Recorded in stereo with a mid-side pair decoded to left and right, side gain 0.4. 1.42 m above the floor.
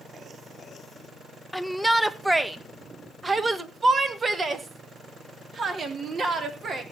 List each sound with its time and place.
1.5 s a shout: 5° left, 1.3 m; by 6.8 s 55° right, 3.5 m